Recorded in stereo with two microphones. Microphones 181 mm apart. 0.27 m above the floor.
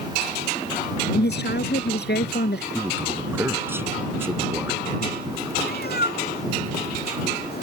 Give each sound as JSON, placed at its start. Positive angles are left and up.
{"t": 1.1, "sound": "a woman speaking", "side_deg": 70}
{"t": 2.7, "sound": "a man speaking", "side_deg": -15}
{"t": 5.6, "sound": "a cat meowing", "side_deg": 65}